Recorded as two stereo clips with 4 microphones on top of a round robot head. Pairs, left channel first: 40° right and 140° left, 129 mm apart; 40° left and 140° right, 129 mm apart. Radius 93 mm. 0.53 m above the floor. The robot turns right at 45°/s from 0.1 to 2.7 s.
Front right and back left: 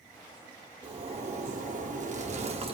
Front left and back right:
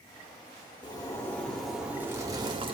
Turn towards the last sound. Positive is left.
turn(degrees=175)